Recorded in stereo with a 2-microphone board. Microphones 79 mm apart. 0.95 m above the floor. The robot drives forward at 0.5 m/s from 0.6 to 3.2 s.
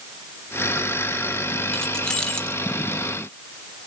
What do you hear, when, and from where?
1.7 s keys jangling: 5° left (ahead or behind), 1.2 m; by 2.6 s 10° left (ahead or behind), 0.8 m